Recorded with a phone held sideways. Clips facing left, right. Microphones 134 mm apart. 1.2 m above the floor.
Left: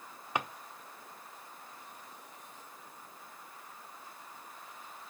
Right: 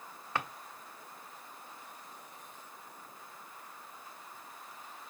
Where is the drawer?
15° left (ahead or behind), 0.8 m.